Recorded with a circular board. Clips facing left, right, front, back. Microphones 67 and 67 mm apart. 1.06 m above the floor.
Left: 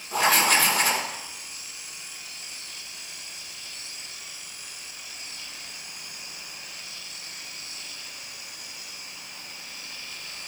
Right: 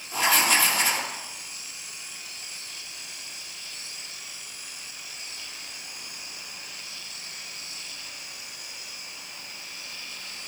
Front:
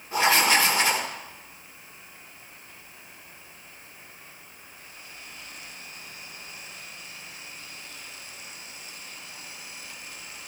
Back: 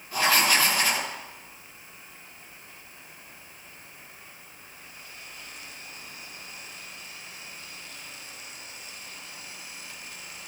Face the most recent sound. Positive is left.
turn(degrees=60)